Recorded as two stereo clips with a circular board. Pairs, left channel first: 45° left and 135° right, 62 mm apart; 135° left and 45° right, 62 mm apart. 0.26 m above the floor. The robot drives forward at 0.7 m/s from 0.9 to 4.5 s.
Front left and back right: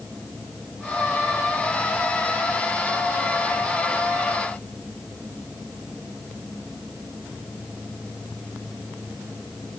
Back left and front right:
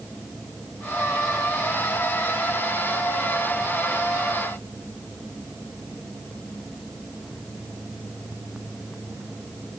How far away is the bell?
I don't hear a bell.